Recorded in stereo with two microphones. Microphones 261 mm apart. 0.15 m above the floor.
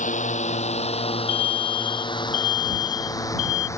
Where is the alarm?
50° left (ahead or behind).